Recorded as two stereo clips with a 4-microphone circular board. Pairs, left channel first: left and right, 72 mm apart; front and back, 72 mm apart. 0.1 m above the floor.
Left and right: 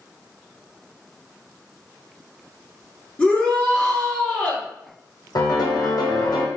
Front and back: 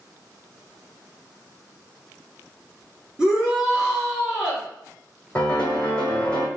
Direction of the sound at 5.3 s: 75° left.